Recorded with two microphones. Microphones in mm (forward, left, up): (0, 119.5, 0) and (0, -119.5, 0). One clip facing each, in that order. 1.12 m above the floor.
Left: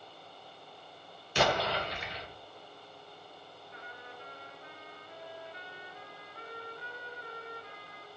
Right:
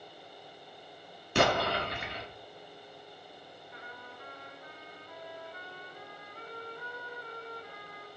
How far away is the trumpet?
About 2.5 m.